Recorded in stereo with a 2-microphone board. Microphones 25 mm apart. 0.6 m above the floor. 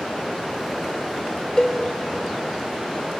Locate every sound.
1.6 s a cowbell: 40° left (ahead or behind), 0.8 m